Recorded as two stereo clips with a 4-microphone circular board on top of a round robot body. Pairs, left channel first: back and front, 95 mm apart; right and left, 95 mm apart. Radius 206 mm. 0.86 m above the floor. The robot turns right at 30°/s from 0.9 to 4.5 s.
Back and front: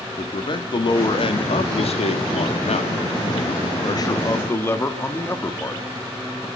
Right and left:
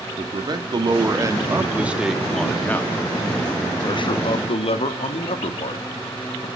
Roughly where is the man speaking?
Behind left.